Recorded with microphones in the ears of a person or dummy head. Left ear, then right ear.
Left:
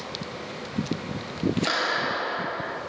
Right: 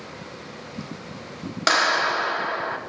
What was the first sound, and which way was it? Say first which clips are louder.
A clap: right 8 dB; 55° right (ahead or behind).